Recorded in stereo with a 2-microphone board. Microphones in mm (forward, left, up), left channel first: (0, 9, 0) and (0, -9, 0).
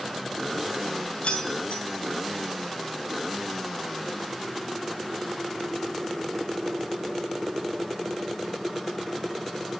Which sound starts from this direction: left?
Keys jangling, at 1.2 s.